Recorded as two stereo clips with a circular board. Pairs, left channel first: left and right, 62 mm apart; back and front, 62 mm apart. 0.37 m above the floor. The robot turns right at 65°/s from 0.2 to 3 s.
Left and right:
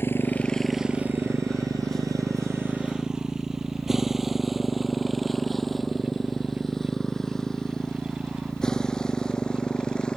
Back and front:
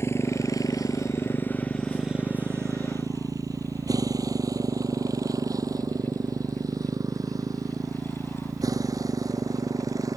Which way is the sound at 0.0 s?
140° left.